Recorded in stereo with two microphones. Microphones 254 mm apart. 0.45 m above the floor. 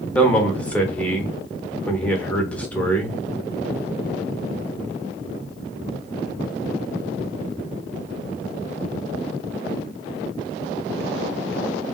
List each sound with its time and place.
0.1 s a man speaking: 5° left (ahead or behind), 0.9 m